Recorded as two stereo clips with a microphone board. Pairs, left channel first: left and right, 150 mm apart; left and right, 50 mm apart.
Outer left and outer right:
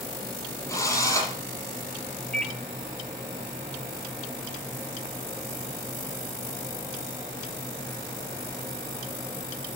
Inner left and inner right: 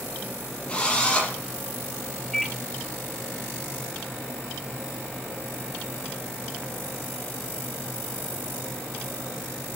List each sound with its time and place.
0.7 s a drill: 20° left (ahead or behind), 6 m
2.3 s a microwave: 5° left (ahead or behind), 1.2 m